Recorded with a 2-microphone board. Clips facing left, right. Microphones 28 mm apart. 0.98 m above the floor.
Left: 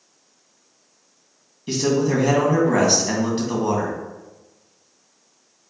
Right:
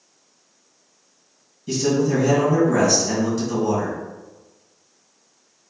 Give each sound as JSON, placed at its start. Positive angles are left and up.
{"t": 1.7, "sound": "a man speaking", "side_deg": 40, "distance_m": 1.3}